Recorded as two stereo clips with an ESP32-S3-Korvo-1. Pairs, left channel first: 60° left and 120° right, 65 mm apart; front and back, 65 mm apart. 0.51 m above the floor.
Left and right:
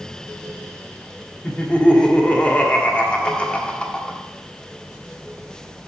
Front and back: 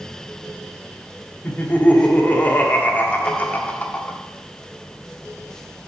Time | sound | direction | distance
1.4 | laughter | 15° left | 1.4 m